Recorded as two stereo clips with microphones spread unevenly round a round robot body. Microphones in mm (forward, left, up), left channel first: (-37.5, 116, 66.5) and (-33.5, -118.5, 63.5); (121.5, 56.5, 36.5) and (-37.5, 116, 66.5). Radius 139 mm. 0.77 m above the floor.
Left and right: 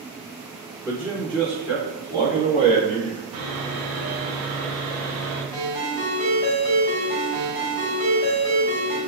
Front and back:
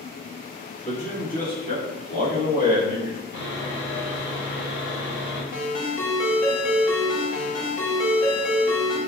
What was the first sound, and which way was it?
A man speaking, 15° right.